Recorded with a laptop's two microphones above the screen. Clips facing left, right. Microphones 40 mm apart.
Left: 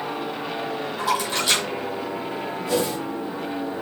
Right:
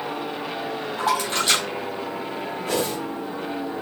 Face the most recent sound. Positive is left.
turn(degrees=-40)  # may be behind; listen again after turning